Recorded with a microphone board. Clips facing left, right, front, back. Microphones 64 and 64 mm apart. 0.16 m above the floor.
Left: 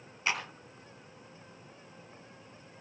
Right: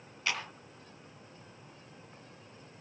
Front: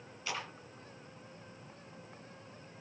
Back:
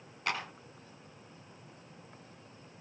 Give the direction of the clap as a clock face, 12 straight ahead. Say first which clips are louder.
Left 2 dB, back 5 dB; 7 o'clock.